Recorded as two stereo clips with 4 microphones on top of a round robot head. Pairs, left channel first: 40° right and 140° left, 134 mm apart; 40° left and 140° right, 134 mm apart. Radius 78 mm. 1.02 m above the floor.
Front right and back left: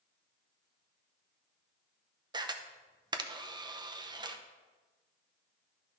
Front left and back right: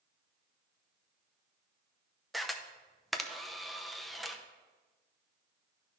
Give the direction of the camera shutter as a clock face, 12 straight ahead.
8 o'clock.